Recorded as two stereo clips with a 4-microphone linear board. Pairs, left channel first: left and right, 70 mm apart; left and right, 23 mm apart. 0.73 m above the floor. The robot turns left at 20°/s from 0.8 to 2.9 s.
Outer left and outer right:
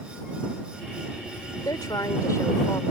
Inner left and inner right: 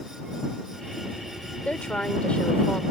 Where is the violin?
I don't hear a violin.